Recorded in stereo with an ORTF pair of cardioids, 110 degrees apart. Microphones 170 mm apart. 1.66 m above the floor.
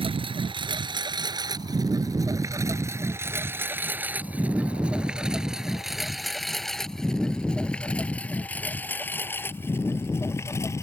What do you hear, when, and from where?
0.0 s a lawn mower: 35° right; by 10.8 s 15° left